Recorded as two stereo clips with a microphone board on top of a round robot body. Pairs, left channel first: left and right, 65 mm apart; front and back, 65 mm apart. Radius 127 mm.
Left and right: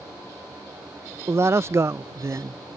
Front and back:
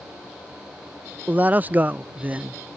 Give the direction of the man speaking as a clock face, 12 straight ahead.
4 o'clock.